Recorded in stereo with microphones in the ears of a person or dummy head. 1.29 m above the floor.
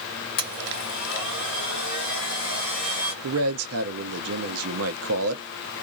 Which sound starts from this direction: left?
A blender, at 0.4 s.